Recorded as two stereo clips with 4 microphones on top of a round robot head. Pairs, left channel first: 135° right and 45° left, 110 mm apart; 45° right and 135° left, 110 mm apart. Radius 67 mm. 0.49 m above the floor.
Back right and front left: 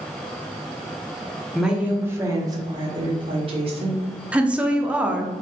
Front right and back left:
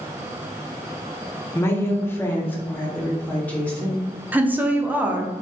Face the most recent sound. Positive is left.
turn(degrees=100)